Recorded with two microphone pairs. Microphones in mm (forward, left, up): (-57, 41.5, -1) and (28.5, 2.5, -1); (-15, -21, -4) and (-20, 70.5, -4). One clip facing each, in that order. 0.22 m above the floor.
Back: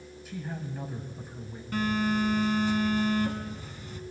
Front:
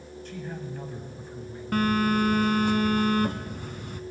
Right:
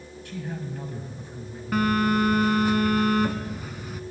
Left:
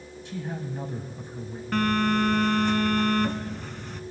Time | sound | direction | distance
0.2 | a man speaking | 90° left | 1.1 m
1.7 | a phone buzzing | straight ahead | 0.5 m